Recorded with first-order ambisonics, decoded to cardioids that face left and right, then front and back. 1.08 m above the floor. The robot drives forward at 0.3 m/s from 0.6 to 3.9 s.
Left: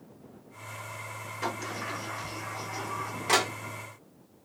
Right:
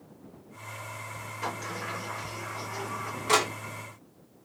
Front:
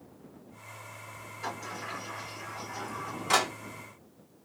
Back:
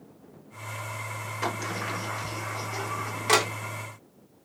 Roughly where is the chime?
No chime in this recording.